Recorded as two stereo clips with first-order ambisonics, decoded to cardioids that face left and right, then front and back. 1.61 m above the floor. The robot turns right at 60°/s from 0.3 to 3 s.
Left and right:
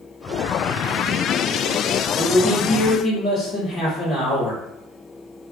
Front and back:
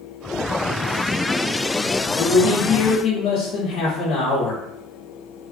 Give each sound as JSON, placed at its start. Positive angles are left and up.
{"t": 2.2, "sound": "a man speaking", "azimuth_deg": -15, "distance_m": 1.2}